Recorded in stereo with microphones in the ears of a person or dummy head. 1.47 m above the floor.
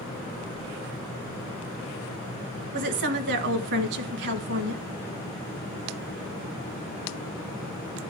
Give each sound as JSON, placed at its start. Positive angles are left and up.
{"t": 2.7, "sound": "a woman speaking", "side_deg": -65, "distance_m": 1.5}